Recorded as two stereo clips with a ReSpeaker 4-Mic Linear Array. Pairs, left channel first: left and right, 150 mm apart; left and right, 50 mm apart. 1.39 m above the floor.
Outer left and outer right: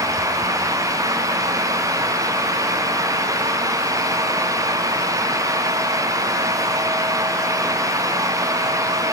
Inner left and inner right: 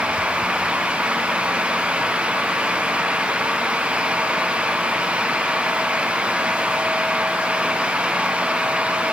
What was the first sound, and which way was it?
Only background noise.